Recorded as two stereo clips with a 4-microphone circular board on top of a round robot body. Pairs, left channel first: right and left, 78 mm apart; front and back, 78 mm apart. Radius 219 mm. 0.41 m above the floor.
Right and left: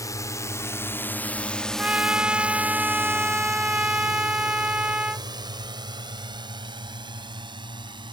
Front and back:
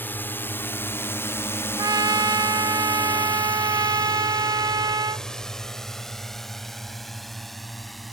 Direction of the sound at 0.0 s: 60° right.